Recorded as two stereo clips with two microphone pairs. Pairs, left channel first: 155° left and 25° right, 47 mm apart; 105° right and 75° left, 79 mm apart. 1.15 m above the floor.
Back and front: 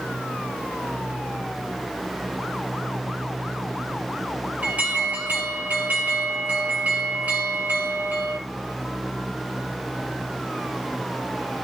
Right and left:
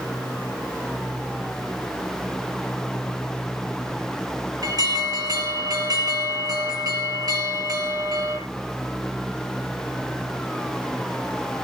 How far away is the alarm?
About 9 m.